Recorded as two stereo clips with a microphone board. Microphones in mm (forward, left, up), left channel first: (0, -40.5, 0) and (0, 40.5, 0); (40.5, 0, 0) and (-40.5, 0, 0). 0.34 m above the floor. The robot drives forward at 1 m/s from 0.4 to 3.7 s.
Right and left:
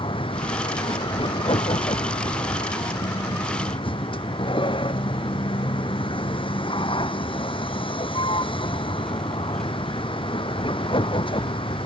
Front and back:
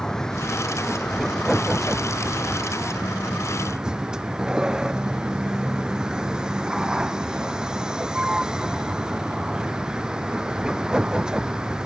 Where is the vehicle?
85° right; by 11.9 s 100° right.